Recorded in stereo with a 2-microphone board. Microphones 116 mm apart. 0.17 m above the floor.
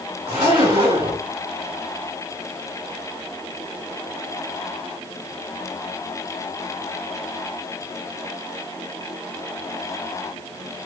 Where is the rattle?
I don't hear a rattle.